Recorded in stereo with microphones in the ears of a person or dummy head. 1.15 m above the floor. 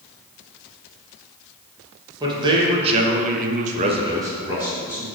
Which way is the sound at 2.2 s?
25° right (ahead or behind).